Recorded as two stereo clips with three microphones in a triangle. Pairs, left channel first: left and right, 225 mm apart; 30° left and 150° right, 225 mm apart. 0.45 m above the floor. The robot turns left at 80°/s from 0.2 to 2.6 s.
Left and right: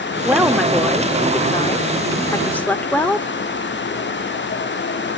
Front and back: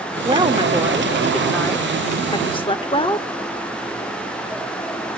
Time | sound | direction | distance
0.2 | a woman speaking | 155° right | 0.8 m